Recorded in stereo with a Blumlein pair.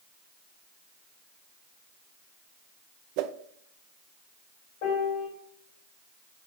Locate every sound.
3.2 s a whoosh: 45° right, 0.6 m
4.8 s a piano: 45° left, 3.5 m